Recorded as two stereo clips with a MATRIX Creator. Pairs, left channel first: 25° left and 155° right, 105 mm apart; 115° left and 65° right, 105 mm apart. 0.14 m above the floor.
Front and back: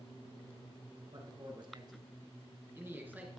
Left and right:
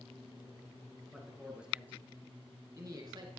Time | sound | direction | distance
1.1 | a man speaking | 155° right | 1.8 m